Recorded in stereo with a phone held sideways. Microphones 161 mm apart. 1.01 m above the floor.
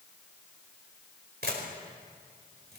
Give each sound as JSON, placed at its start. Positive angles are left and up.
{"t": 1.4, "sound": "a camera shutter", "side_deg": -85, "distance_m": 5.0}